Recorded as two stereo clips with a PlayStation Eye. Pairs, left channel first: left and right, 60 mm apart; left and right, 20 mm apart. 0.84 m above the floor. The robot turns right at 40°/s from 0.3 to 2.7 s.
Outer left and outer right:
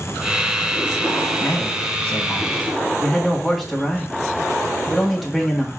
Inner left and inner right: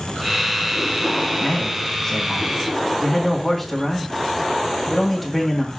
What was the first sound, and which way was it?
A man speaking, 130° left.